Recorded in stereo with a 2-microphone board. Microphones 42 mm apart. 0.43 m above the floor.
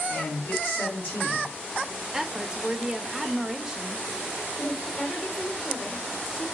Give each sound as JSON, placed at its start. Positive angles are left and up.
{"t": 0.1, "sound": "a man speaking", "side_deg": 70, "distance_m": 3.0}
{"t": 2.1, "sound": "a woman speaking", "side_deg": -15, "distance_m": 1.0}
{"t": 4.6, "sound": "a woman speaking", "side_deg": 35, "distance_m": 1.5}